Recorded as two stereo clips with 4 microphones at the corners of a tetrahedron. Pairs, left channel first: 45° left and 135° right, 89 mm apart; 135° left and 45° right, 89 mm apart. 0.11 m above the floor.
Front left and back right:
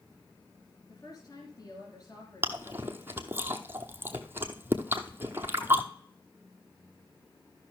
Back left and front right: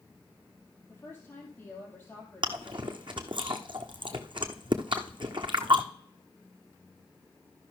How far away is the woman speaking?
About 2.5 m.